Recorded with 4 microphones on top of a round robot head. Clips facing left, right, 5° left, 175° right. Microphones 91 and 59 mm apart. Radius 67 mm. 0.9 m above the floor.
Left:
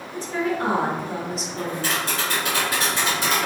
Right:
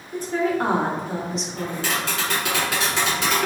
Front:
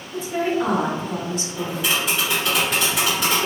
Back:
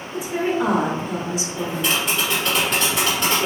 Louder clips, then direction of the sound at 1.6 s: Left 1 dB, even; 80° right.